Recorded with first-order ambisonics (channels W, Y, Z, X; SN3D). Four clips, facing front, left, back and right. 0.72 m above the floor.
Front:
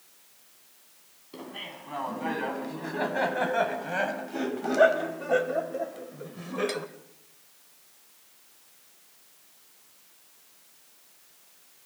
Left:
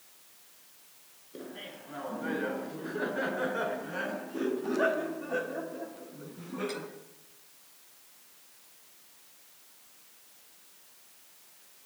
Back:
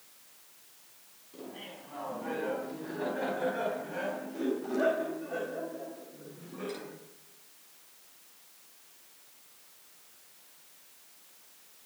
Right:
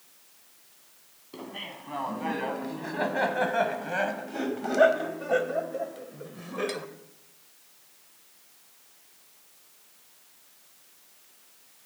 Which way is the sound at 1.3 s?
50° right.